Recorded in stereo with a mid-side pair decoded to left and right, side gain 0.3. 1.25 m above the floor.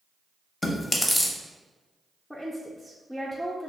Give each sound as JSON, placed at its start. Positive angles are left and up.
{"t": 0.6, "sound": "chewing", "azimuth_deg": 25, "distance_m": 0.7}
{"t": 2.3, "sound": "a woman speaking", "azimuth_deg": 5, "distance_m": 0.5}